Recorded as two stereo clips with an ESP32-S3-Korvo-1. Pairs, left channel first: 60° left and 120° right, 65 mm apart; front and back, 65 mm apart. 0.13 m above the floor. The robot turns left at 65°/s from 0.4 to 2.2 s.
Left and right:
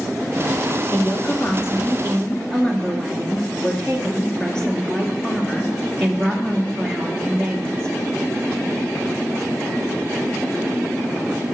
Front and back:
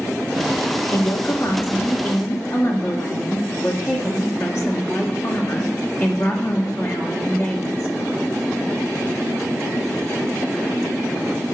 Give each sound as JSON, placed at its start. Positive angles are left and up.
{"t": 0.9, "sound": "a woman speaking", "azimuth_deg": 70, "distance_m": 1.8}